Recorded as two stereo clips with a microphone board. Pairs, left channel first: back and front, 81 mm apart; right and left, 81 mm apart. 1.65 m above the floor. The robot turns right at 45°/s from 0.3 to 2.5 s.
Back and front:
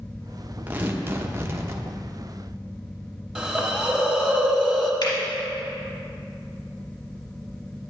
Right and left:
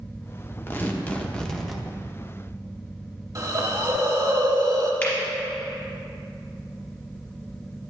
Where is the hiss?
75° left, 1.2 m.